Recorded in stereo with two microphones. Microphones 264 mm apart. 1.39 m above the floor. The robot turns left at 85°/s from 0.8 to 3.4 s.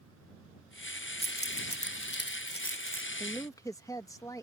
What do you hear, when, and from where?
1.2 s keys jangling: 20° left (ahead or behind); by 3.1 s centre (ahead or behind)
3.2 s a woman speaking: 5° right (ahead or behind); by 4.4 s 10° left (ahead or behind)